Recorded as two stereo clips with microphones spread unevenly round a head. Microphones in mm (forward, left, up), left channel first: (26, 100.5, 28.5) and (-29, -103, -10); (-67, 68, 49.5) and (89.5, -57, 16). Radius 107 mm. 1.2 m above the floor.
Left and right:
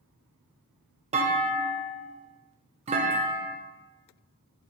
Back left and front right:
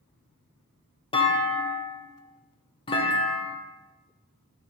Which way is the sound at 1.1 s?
150° right.